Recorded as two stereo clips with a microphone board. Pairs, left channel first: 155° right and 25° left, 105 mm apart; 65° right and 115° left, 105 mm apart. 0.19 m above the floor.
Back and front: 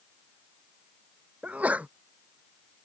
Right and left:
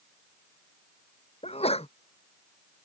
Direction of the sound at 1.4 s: 55° right.